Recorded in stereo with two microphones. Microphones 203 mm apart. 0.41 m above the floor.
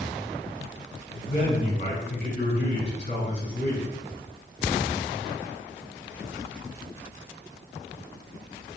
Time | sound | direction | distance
1.1 | a man speaking | 35° left (ahead or behind) | 2.0 m